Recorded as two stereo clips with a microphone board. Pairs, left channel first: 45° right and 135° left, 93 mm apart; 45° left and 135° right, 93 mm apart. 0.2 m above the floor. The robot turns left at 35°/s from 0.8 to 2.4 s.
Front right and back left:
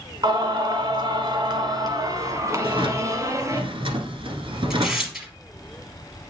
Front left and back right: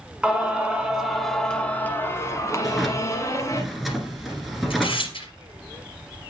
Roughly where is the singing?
Behind left.